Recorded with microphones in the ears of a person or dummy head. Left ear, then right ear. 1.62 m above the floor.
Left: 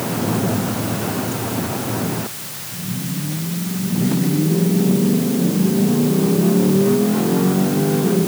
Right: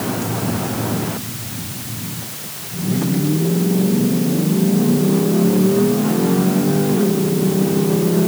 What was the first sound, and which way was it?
Only background noise.